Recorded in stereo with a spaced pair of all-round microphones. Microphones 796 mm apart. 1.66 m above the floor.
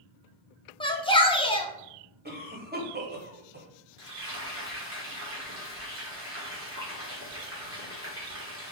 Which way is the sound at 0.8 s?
10° left (ahead or behind).